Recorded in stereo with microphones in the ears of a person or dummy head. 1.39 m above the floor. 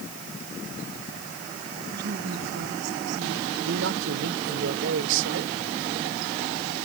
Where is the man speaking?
75° right (ahead or behind).